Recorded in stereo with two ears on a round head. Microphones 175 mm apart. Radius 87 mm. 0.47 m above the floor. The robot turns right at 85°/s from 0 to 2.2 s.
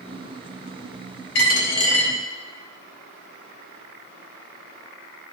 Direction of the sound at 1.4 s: 115° left.